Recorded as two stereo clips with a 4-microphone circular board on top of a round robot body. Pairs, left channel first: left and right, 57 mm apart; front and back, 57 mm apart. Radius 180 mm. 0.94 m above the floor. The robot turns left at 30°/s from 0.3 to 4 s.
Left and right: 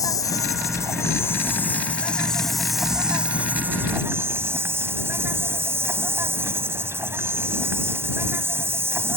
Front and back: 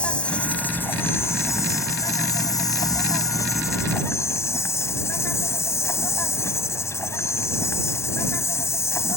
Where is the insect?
70° left; by 9.2 s 40° right.